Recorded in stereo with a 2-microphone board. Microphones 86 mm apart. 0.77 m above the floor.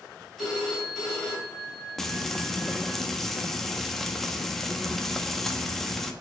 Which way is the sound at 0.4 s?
5° left (ahead or behind).